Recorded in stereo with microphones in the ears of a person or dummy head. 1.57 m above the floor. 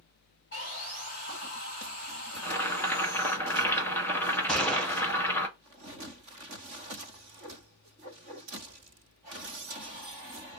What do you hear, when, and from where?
0.5 s sawing: 50° left (ahead or behind), 2 m
2.4 s boiling: 10° left (ahead or behind), 1.2 m
4.5 s a gunshot: centre (ahead or behind), 0.8 m